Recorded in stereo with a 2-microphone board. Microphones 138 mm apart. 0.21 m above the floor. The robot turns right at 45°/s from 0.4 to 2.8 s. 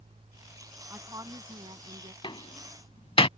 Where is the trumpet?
I don't hear a trumpet.